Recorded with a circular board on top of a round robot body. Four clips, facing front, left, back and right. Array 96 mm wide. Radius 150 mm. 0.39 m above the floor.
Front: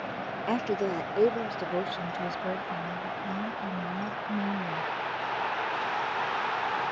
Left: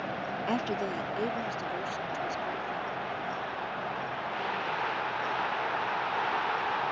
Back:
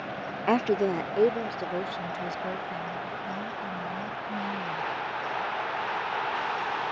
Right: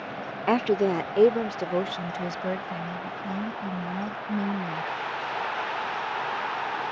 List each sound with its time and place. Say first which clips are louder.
0.5 s a woman speaking: right 10 dB, back 5 dB; 130° right; by 4.9 s 70° right